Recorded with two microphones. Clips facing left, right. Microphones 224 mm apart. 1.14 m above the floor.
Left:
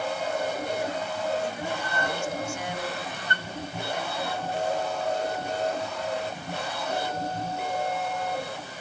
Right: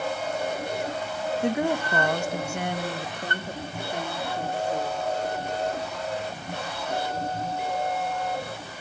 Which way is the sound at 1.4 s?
65° right (ahead or behind).